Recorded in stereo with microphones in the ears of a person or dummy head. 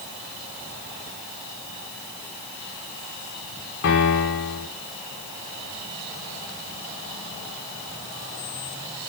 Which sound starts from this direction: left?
A piano, at 3.8 s.